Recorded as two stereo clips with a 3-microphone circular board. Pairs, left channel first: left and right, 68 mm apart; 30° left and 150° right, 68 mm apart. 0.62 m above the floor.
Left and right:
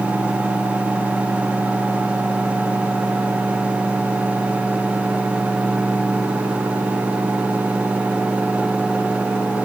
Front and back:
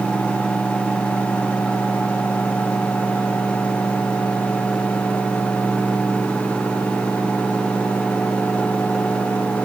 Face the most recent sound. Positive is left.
No sound to turn to.